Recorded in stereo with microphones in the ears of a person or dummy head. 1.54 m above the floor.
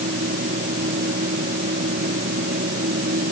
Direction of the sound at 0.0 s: 40° right (ahead or behind).